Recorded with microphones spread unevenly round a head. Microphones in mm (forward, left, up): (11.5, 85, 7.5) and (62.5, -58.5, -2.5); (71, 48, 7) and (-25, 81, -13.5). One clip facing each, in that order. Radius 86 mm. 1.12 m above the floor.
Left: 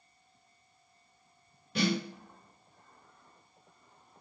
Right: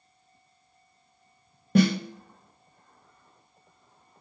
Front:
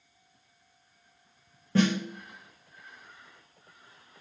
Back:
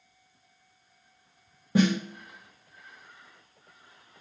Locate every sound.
1.8 s a snare drum: 120° right, 0.8 m